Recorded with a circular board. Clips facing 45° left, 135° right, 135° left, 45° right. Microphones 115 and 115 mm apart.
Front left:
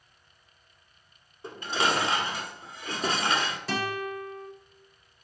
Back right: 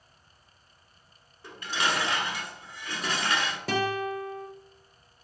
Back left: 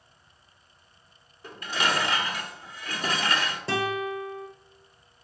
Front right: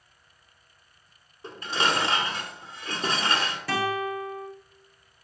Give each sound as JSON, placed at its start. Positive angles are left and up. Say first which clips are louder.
{"t": 1.4, "sound": "dishes clattering", "louder": "front left 3 dB, front right 1 dB", "azimuth_deg": 0, "distance_m": 1.0}
{"t": 3.7, "sound": "a guitar", "louder": "back right 6 dB, front right 1 dB", "azimuth_deg": -165, "distance_m": 1.6}